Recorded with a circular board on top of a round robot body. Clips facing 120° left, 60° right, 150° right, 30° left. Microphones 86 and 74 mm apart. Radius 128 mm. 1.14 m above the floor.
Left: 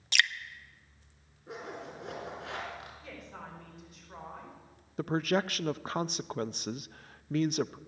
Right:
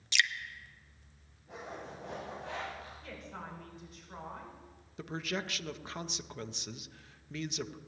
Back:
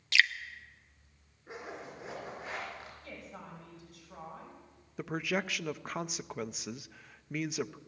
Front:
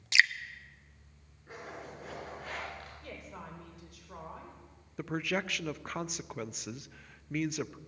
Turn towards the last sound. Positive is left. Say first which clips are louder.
# left 9 dB, even
turn(degrees=125)